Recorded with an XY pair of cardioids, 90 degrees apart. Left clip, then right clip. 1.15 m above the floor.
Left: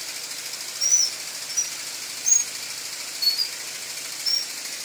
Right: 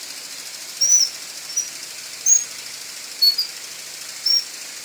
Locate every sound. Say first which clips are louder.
0.8 s a bird: right 4 dB; 60° right, 1.1 m